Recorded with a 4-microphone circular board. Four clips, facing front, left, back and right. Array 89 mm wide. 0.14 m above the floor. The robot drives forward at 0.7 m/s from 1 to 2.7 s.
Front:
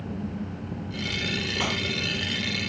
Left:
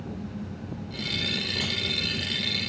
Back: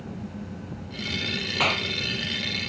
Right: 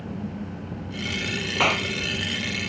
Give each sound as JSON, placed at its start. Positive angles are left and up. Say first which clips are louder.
{"t": 1.6, "sound": "a clap", "louder": "right 10 dB, back 5 dB", "azimuth_deg": -110}